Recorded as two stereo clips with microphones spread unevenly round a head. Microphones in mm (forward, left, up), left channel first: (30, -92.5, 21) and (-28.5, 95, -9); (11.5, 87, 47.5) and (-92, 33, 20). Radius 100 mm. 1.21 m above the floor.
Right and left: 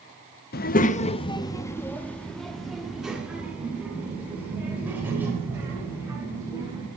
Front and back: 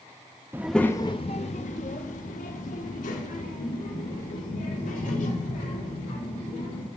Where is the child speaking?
65° right, 0.6 m; by 6.9 s 25° left, 4.5 m.